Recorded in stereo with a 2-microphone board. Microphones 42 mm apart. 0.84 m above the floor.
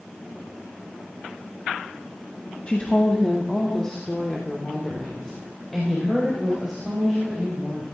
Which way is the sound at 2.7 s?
30° left (ahead or behind).